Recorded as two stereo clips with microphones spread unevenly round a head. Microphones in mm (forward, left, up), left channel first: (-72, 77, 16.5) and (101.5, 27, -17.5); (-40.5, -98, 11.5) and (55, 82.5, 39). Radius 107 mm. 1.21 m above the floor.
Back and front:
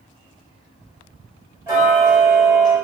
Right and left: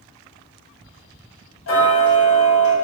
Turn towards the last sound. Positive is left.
turn(degrees=-95)